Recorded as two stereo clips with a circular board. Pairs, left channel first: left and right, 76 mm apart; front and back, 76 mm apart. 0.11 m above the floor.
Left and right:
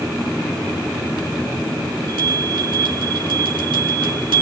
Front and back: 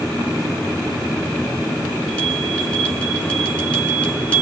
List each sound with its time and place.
2.1 s a bell: 75° right, 8 m